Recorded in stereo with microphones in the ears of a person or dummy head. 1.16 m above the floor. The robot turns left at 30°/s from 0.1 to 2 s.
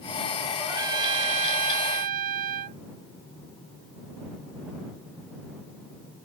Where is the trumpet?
15° right; by 2.8 s 60° right.